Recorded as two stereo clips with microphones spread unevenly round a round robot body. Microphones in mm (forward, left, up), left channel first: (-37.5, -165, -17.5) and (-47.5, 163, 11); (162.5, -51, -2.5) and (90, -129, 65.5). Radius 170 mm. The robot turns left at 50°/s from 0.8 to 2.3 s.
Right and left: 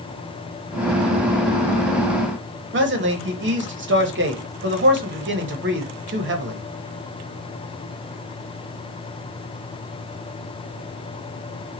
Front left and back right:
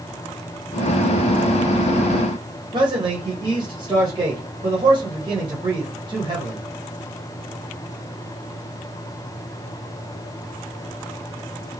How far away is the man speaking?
About 1.2 m.